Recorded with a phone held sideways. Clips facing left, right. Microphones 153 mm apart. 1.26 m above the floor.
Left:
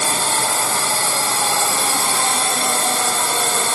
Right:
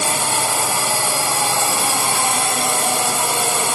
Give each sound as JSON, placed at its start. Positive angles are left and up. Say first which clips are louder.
{"t": 0.0, "sound": "a drone", "louder": "even", "side_deg": -15}